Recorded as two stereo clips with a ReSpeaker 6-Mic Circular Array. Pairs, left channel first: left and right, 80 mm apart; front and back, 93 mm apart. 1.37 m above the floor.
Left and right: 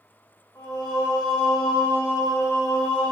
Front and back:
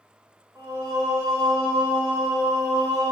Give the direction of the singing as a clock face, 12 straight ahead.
8 o'clock.